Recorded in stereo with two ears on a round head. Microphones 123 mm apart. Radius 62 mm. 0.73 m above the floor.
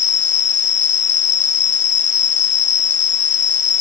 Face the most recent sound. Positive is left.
turn(degrees=55)  # may be behind; listen again after turning